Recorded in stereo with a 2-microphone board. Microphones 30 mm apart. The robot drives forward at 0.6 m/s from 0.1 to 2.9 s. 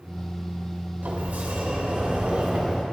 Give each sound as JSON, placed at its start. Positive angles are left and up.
{"t": 1.0, "sound": "a sliding door", "side_deg": -65, "distance_m": 1.1}